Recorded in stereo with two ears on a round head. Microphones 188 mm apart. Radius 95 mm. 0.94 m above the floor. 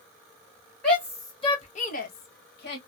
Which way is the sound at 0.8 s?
5° left (ahead or behind).